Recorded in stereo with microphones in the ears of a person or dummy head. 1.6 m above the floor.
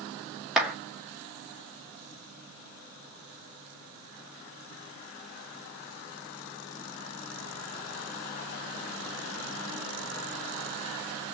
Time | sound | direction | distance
0.6 | a clap | centre (ahead or behind) | 2.0 m